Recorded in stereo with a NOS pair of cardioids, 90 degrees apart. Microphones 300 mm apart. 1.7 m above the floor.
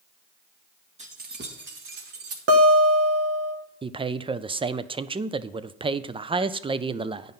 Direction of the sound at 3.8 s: 20° right.